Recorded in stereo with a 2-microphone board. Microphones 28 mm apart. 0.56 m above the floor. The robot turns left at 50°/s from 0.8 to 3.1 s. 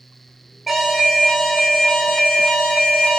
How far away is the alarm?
About 1.4 m.